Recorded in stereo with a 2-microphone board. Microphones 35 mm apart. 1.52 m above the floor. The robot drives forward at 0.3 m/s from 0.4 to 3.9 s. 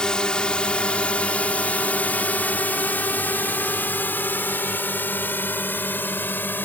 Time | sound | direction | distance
0.0 | a drone | 25° left (ahead or behind) | ?